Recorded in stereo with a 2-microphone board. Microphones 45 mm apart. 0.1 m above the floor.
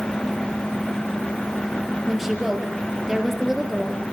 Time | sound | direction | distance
2.1 | a woman speaking | 10° right (ahead or behind) | 2.5 m